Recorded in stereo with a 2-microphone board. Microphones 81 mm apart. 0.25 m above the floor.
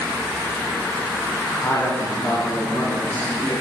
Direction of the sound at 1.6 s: 40° left (ahead or behind).